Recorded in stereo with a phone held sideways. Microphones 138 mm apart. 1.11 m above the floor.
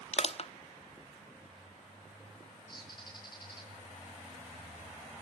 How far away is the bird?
About 8 m.